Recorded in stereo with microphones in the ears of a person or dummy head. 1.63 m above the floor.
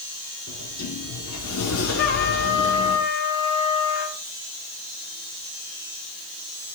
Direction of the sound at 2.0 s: 40° left (ahead or behind).